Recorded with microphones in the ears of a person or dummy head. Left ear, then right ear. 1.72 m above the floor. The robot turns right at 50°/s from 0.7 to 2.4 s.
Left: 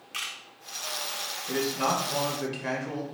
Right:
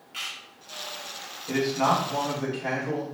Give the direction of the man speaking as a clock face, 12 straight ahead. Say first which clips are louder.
Right 4 dB; 12 o'clock.